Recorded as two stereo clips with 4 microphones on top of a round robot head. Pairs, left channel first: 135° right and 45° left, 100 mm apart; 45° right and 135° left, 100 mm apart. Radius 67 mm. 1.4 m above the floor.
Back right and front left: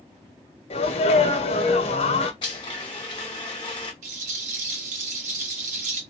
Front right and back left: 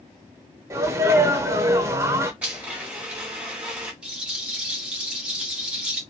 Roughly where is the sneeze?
Behind.